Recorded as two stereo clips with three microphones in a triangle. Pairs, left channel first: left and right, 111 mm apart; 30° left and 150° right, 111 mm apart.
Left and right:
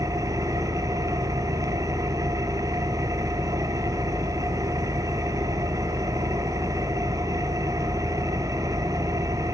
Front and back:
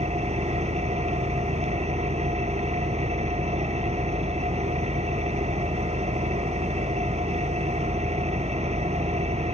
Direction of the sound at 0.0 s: 150° right.